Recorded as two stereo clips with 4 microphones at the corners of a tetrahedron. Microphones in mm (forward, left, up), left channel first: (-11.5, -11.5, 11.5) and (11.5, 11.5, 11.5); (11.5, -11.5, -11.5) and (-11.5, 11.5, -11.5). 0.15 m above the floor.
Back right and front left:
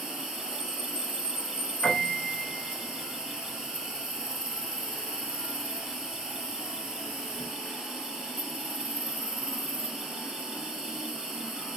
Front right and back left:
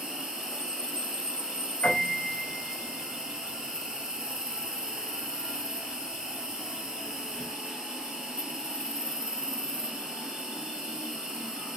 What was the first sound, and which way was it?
An insect, 90° left.